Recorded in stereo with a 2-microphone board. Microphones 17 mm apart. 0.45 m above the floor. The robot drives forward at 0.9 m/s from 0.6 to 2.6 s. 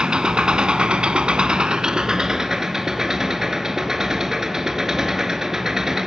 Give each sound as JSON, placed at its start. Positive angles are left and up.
{"t": 0.0, "sound": "an engine running", "side_deg": -65, "distance_m": 1.0}